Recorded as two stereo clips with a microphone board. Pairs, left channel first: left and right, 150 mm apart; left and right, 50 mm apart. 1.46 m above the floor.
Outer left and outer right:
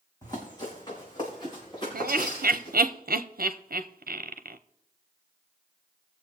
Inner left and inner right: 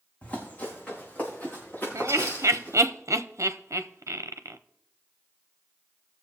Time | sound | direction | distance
0.2 | running footsteps | 25° left (ahead or behind) | 3.5 m
1.9 | laughter | 80° right | 0.6 m